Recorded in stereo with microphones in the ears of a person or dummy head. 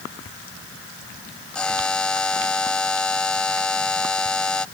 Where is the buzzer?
5° left (ahead or behind).